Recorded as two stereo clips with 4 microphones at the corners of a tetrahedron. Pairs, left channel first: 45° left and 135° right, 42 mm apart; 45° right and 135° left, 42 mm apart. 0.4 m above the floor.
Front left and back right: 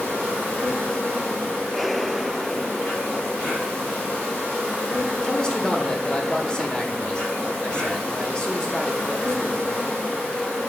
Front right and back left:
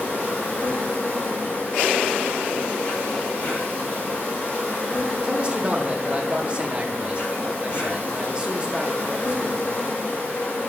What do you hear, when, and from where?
0.0 s an insect: 10° right, 3.5 m
5.2 s a man speaking: 95° left, 0.9 m